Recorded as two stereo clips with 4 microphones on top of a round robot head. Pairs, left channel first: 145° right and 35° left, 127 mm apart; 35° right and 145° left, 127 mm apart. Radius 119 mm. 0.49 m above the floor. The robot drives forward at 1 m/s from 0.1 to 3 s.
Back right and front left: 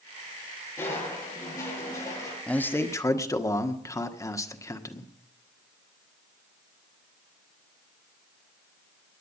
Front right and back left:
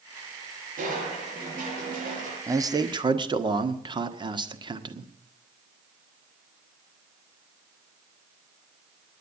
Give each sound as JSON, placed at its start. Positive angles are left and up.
{"t": 0.8, "sound": "crushing", "azimuth_deg": 145, "distance_m": 7.5}
{"t": 2.5, "sound": "a man speaking", "azimuth_deg": 150, "distance_m": 1.3}